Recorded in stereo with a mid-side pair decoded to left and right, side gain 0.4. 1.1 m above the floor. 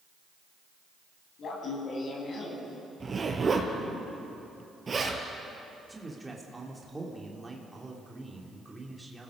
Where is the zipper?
35° right, 5 m.